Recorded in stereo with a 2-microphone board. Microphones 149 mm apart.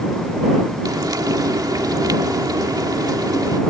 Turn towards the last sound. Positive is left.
turn(degrees=-25)  # may be behind; listen again after turning